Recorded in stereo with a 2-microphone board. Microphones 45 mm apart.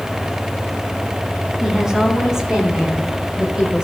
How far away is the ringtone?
I don't hear a ringtone.